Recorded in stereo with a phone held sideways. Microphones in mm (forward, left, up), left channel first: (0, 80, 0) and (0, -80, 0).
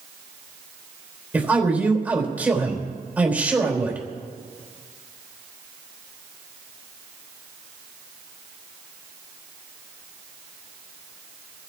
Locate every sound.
1.3 s a man speaking: 10° right (ahead or behind), 4 m